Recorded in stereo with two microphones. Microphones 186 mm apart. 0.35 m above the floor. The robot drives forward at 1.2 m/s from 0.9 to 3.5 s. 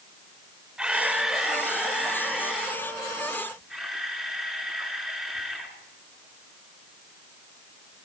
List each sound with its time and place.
0.8 s a camera shutter: 5° right (ahead or behind), 0.8 m; by 5.8 s centre (ahead or behind), 3.5 m